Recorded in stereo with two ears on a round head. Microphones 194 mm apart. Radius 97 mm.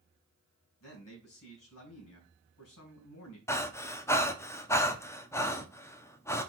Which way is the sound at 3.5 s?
15° left (ahead or behind).